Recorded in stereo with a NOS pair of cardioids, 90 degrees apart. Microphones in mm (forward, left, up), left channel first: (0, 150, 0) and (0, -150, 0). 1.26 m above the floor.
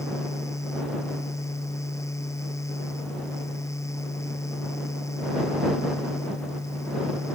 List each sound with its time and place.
0.0 s a fan: 10° left